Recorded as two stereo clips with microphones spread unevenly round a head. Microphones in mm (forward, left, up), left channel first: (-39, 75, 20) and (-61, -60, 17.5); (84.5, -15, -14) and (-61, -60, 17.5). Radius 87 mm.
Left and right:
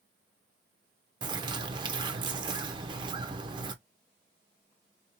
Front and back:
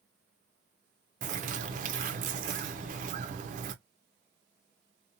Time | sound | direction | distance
1.2 | a bird | 155° right | 0.6 m